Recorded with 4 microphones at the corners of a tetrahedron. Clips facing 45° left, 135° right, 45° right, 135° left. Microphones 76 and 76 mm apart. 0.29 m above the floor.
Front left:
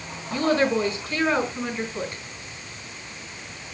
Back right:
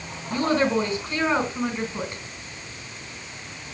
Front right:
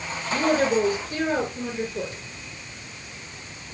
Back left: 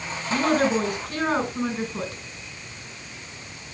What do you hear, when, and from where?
0.3 s a woman speaking: 165° left, 3 m